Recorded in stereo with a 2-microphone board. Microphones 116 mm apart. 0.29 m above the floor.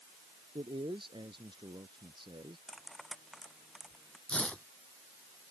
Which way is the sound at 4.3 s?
10° left (ahead or behind).